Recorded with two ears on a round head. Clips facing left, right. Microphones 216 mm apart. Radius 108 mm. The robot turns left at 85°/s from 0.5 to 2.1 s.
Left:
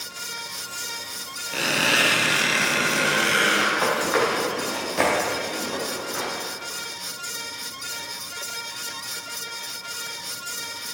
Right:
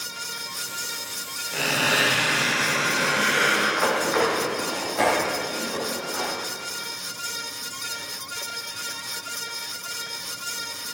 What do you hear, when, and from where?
1.5 s a squeak: 175° left, 4 m; by 3.7 s 125° left, 4 m
3.8 s running footsteps: 50° left (ahead or behind), 5.5 m; by 6.3 s 35° left (ahead or behind), 6.5 m